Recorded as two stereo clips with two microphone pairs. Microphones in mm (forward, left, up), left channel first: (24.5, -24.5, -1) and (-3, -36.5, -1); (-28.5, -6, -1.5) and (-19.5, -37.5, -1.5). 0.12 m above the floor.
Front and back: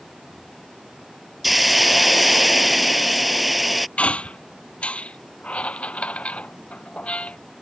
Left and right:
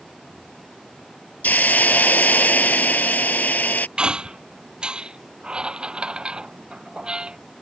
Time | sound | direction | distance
1.4 | a hiss | 115° left | ?
4.0 | a squeak | 20° right | ?